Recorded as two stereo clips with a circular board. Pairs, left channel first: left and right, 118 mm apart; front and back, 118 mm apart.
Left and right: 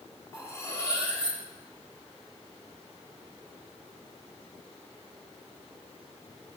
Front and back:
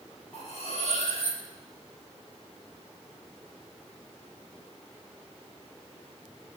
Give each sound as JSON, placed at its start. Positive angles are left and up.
{"t": 0.3, "sound": "cutlery clinking", "azimuth_deg": 25, "distance_m": 8.5}